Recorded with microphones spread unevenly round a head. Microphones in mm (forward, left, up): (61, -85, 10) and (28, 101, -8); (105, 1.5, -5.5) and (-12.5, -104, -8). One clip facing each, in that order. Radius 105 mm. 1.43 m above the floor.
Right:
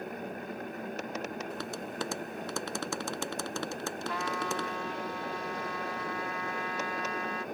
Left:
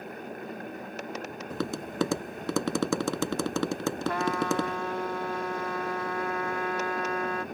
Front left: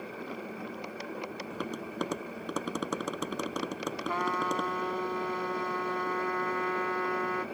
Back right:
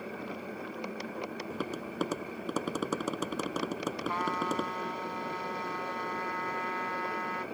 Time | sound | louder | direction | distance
1.5 | tapping | left 5 dB, even | 135° left | ?
4.1 | a trumpet | left 7 dB, front left 3 dB | 60° left | ?